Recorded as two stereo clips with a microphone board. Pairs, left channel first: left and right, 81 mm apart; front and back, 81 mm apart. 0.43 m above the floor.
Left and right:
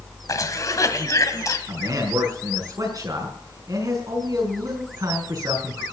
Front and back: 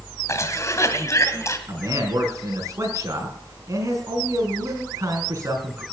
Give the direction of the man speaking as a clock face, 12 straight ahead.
4 o'clock.